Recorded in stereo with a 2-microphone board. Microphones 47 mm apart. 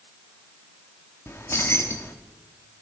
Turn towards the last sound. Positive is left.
turn(degrees=75)  # may be behind; listen again after turning